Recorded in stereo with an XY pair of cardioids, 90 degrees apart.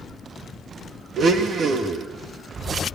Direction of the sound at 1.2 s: 60° right.